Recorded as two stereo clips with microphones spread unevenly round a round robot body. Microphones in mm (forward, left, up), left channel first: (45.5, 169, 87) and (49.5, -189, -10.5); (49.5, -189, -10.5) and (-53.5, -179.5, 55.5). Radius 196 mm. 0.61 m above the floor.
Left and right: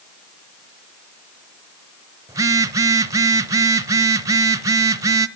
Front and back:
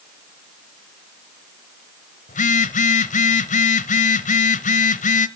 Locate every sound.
2.3 s a phone buzzing: 5° right, 0.7 m